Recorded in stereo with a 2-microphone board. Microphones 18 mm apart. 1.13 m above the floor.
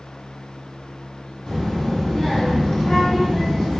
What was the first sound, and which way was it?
A child speaking, 80° left.